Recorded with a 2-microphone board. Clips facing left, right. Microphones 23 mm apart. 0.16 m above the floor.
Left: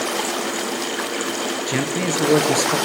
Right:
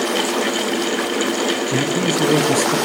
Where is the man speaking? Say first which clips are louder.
Right 3 dB; 25° left (ahead or behind), 2.5 m.